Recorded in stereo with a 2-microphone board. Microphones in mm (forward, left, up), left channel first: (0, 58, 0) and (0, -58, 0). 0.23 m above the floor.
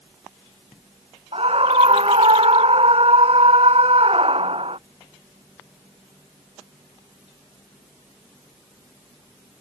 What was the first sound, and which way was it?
A scream, 55° right (ahead or behind).